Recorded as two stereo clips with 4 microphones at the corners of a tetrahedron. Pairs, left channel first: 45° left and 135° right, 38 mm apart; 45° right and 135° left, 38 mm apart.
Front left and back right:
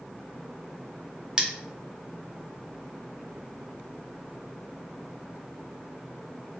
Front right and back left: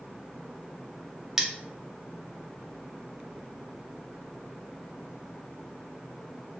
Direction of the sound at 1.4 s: 160° right.